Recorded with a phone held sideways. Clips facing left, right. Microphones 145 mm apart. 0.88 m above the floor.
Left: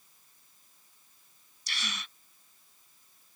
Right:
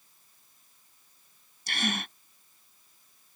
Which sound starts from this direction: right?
A gasp, at 1.7 s.